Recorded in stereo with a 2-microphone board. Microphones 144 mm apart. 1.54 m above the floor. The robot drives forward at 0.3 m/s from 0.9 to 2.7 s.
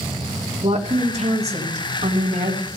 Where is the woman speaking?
45° right (ahead or behind), 2 m; by 2.7 s 55° right (ahead or behind), 1.8 m.